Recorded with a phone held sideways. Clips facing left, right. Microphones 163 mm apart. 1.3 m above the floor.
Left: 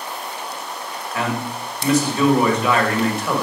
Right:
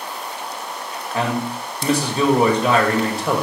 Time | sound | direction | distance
1.1 | a man speaking | 30° right (ahead or behind) | 1.9 m